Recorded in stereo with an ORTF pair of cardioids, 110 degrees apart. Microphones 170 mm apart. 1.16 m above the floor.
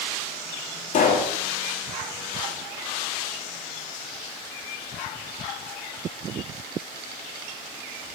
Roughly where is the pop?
Ahead left.